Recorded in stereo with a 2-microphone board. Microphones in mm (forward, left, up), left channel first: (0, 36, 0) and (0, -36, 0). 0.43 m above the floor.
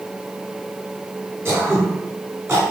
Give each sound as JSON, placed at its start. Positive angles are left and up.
{"t": 1.4, "sound": "throat clearing", "side_deg": -35, "distance_m": 1.5}